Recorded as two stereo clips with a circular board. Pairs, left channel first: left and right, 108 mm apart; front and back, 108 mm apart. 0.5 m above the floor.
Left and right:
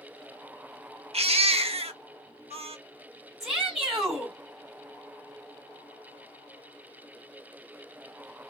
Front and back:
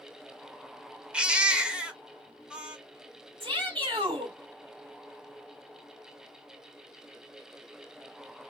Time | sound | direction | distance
1.1 | a baby crying | 100° right | 0.7 m
3.4 | a shout | 170° right | 1.9 m